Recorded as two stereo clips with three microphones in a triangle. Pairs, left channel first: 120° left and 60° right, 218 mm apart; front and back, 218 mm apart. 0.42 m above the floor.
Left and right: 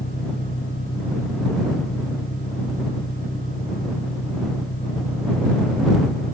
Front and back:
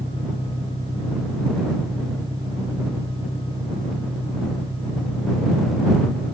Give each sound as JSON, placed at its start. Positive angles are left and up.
{"t": 0.0, "sound": "an engine running", "azimuth_deg": 105}